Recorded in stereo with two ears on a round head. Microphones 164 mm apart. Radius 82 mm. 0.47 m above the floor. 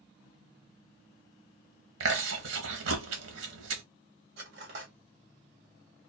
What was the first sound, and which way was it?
Chewing, 85° right.